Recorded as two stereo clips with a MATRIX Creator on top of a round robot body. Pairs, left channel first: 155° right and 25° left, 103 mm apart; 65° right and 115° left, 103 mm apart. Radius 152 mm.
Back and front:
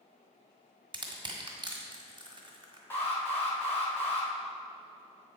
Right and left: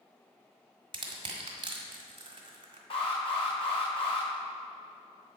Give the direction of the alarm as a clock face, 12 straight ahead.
3 o'clock.